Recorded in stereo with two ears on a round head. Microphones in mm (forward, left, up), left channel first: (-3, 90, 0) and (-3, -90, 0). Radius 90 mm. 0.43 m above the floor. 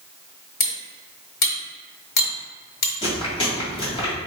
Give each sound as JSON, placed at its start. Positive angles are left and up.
{"t": 0.6, "sound": "cutlery clinking", "side_deg": 50, "distance_m": 1.1}
{"t": 3.0, "sound": "chewing", "side_deg": 30, "distance_m": 1.7}